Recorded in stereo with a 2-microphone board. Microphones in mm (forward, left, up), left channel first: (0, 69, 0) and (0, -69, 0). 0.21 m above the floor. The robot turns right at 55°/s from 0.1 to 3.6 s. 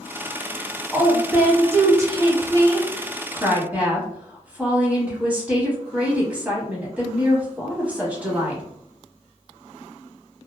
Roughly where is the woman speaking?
Centre.